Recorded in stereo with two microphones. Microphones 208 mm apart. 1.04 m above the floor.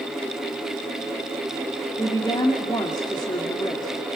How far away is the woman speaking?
About 2.5 m.